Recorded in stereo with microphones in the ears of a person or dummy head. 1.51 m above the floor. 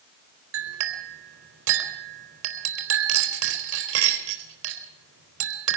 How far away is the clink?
About 4 m.